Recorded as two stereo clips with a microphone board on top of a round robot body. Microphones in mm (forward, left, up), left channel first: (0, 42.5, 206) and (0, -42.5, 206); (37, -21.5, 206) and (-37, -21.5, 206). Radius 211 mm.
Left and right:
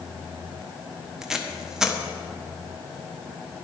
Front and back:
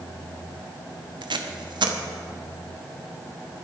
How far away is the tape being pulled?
About 1.2 m.